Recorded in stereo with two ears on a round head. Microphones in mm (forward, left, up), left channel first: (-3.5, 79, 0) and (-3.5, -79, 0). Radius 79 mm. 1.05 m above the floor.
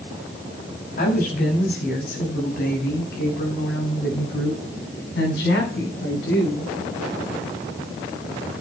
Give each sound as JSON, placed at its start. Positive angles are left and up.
{"t": 1.0, "sound": "a woman speaking", "side_deg": 50, "distance_m": 6.0}